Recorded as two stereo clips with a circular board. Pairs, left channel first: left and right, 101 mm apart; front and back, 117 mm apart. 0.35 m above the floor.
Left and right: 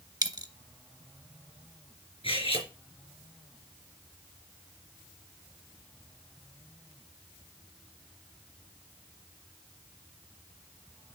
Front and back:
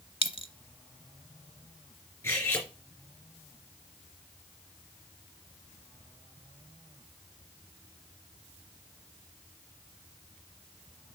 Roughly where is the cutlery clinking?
Left.